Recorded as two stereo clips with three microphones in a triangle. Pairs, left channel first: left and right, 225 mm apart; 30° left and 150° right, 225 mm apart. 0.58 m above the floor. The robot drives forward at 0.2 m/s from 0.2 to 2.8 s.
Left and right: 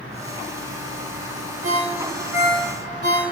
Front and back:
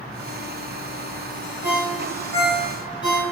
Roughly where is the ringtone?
Right.